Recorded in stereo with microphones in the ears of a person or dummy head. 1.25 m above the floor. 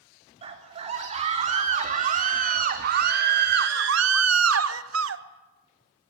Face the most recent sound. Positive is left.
turn(degrees=-80)